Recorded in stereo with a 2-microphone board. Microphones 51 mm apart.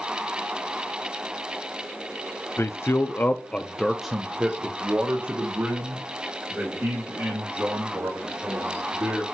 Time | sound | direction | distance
2.6 | a man speaking | 60° left (ahead or behind) | 0.6 m